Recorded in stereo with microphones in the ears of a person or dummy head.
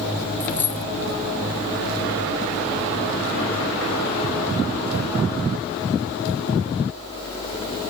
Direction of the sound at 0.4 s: 20° left (ahead or behind).